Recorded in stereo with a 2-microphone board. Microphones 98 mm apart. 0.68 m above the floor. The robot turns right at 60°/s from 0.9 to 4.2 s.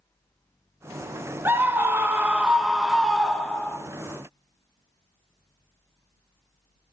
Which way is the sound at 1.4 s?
20° right (ahead or behind).